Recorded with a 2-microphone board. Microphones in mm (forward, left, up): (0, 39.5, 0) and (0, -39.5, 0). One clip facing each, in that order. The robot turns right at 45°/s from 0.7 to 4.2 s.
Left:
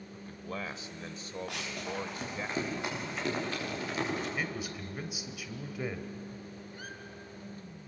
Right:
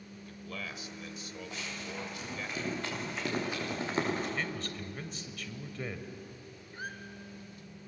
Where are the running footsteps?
75° left (ahead or behind), 8.5 m; by 4.3 s 40° right (ahead or behind), 10 m.